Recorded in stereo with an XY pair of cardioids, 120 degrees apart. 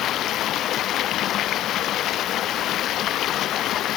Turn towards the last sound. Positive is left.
turn(degrees=65)